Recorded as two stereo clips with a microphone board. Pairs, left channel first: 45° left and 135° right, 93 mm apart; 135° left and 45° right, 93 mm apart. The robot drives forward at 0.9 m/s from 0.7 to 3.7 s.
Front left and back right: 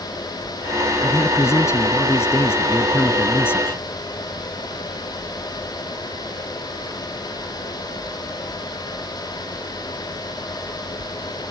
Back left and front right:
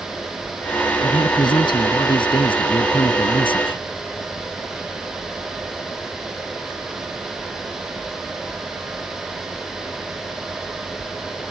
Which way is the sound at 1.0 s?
105° left.